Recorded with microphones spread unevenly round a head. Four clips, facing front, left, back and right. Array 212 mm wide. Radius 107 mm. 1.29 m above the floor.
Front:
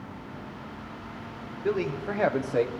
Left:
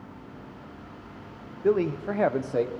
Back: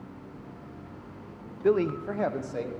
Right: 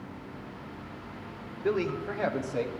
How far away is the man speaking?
About 0.7 m.